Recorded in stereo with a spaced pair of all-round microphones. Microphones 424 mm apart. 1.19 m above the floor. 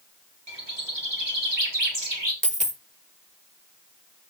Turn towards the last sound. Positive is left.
turn(degrees=-15)  # may be behind; listen again after turning